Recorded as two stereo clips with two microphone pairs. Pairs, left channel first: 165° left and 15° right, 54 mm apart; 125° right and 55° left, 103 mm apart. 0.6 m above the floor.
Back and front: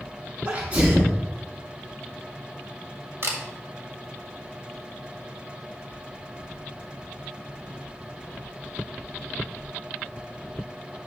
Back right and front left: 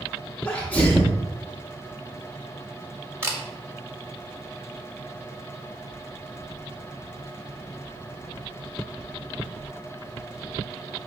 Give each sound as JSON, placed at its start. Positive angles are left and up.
{"t": 0.5, "sound": "a sneeze", "azimuth_deg": -60, "distance_m": 0.8}
{"t": 3.2, "sound": "a camera shutter", "azimuth_deg": -10, "distance_m": 1.5}